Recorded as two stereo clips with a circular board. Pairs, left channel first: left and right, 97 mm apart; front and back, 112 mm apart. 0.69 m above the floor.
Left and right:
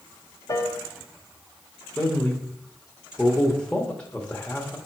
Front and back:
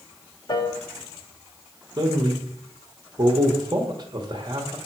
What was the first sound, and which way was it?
A piano, 45° left.